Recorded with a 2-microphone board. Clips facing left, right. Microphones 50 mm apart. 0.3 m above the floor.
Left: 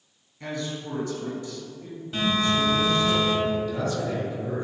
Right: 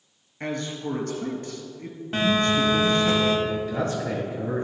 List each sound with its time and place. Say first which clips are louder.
0.4 s a man speaking: right 2 dB; 60° right (ahead or behind), 2.0 m
2.1 s a phone buzzing: right 2 dB; 50° right (ahead or behind), 1.2 m
3.5 s a man speaking: even; 40° right (ahead or behind), 1.8 m